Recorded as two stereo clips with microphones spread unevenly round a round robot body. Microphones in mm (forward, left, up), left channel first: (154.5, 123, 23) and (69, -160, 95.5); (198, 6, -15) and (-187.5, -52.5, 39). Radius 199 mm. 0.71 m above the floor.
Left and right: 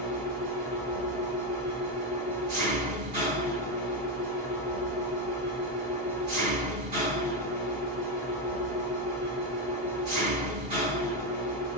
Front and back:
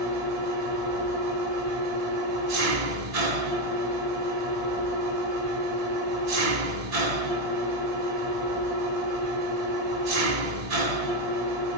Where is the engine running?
155° right, 1.5 m.